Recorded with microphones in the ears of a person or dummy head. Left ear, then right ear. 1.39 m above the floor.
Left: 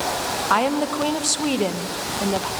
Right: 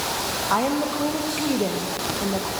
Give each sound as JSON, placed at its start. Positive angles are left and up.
{"t": 0.5, "sound": "a woman speaking", "side_deg": 85, "distance_m": 1.2}